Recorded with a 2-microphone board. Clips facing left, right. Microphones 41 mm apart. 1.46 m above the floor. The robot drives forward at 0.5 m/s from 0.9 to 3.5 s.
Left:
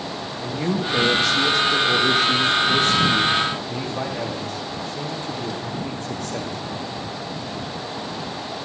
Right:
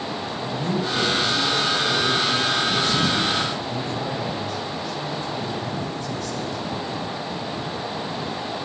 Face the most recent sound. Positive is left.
turn(degrees=50)  # may be behind; listen again after turning